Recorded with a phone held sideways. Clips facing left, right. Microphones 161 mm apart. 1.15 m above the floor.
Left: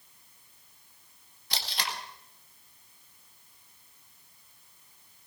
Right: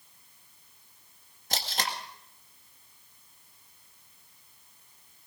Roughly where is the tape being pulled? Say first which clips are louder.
Right 3 dB; right.